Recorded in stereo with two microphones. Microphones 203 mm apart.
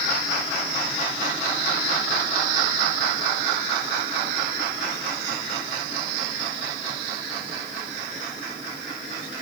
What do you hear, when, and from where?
Only background noise.